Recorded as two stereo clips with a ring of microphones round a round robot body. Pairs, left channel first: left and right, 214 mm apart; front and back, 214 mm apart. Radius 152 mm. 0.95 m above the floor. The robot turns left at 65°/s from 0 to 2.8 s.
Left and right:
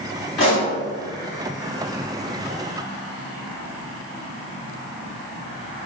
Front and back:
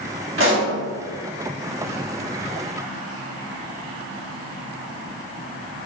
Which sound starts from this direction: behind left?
A pop, at 0.4 s.